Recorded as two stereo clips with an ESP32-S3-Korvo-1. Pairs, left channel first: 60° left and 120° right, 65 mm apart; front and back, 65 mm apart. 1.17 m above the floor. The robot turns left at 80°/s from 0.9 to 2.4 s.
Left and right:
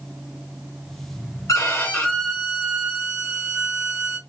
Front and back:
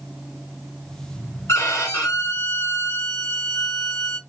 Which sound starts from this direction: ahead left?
A violin, at 1.5 s.